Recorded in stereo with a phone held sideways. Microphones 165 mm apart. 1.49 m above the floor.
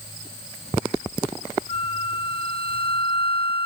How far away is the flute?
About 0.8 m.